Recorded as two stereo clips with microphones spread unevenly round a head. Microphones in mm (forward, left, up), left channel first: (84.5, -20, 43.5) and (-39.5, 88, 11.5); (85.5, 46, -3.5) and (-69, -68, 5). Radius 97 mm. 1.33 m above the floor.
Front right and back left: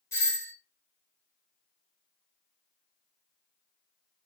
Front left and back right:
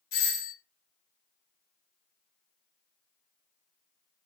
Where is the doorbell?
35° left, 1.7 m.